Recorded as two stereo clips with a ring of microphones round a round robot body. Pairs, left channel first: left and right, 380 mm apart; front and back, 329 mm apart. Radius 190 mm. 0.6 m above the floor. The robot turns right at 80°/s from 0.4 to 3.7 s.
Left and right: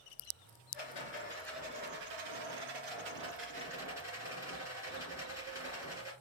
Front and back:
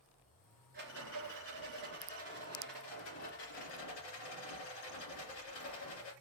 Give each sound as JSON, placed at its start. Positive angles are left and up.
{"t": 0.7, "sound": "a rattle", "azimuth_deg": 115, "distance_m": 2.5}